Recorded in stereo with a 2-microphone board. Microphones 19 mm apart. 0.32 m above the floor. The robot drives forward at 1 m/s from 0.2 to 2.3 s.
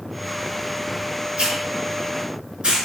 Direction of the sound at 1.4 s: 60° right (ahead or behind).